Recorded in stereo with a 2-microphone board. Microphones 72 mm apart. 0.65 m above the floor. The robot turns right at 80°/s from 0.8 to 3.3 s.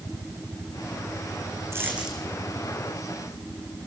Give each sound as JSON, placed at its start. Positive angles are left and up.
{"t": 1.7, "sound": "a dropped coin", "azimuth_deg": -40, "distance_m": 3.0}